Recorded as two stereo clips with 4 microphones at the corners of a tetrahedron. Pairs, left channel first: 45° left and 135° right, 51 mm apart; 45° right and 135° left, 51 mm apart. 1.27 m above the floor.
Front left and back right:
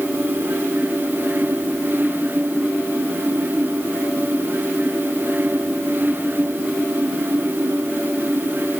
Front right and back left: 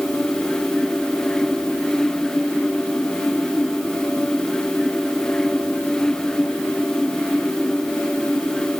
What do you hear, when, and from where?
Only background noise.